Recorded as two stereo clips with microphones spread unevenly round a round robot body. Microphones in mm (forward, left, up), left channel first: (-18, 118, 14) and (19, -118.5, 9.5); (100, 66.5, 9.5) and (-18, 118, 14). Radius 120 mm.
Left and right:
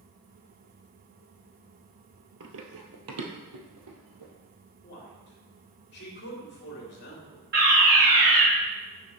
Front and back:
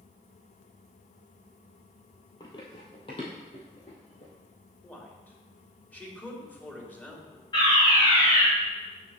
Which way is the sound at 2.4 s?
85° right.